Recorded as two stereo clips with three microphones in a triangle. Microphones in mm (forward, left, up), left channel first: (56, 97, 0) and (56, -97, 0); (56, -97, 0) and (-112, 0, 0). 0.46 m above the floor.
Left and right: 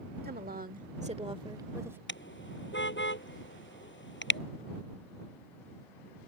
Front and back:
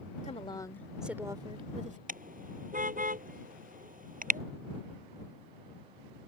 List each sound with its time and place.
0.2 s a woman speaking: 75° right; by 2.0 s 165° right
2.1 s a car horn: 105° left